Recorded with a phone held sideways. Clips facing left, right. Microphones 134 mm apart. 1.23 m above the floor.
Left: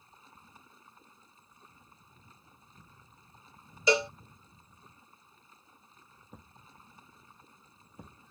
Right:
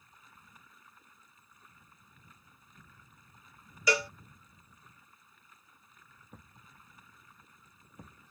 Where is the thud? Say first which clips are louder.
Left 2 dB; 15° left (ahead or behind).